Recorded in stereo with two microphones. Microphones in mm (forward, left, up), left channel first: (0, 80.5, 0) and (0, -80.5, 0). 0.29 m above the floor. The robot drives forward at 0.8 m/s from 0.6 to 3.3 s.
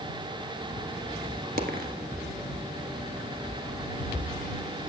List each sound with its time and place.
1.6 s a dropped coin: 60° right (ahead or behind), 1.3 m; by 1.9 s 70° right (ahead or behind), 1.2 m